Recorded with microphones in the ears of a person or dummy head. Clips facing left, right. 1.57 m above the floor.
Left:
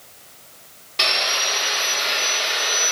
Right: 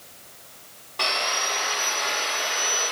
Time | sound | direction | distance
1.0 | sawing | 45° left (ahead or behind) | 1.5 m